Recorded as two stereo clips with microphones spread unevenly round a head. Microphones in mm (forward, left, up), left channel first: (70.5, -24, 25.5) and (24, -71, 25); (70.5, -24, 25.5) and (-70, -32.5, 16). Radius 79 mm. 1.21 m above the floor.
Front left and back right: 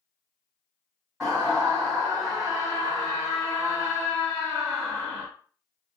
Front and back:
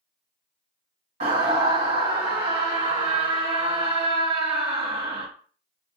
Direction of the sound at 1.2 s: 140° left.